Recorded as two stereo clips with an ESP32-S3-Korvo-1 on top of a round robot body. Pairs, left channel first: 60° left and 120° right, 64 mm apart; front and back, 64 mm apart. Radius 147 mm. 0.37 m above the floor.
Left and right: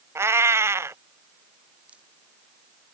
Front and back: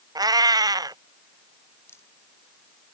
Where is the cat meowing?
170° right.